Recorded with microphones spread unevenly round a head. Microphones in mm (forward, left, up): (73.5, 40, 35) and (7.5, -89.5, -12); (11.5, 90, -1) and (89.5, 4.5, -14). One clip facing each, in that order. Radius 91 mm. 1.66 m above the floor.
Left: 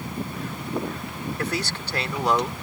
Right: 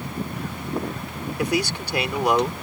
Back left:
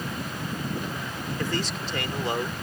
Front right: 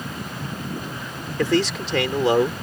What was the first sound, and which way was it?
A man speaking, 40° right.